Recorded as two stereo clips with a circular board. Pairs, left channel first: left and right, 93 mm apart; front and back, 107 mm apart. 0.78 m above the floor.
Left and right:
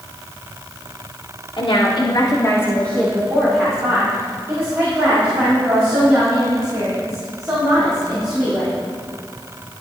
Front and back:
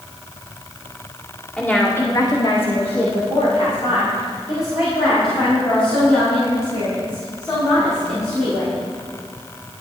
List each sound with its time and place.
1.6 s a woman speaking: 80° left, 2 m; by 8.8 s 40° right, 9.5 m